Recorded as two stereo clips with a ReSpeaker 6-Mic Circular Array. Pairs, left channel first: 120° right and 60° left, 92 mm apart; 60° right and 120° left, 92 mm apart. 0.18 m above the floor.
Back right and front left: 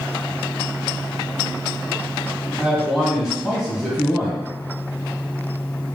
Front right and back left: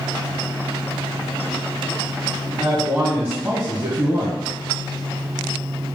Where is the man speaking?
140° left, 1.0 m.